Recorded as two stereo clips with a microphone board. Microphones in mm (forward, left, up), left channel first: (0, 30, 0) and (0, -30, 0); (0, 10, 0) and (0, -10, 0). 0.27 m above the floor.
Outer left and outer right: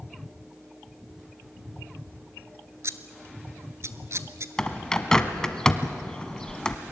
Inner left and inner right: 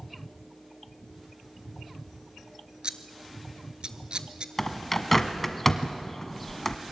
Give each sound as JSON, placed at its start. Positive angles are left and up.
{"t": 2.8, "sound": "scissors", "side_deg": -50, "distance_m": 0.9}
{"t": 4.6, "sound": "a bird", "side_deg": 10, "distance_m": 1.1}